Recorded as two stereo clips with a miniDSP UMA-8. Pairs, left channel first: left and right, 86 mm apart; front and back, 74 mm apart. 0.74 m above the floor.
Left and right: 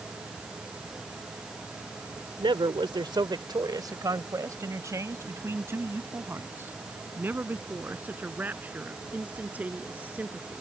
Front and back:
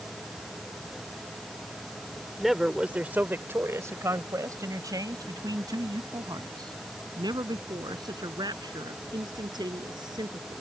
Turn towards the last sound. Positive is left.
turn(degrees=-165)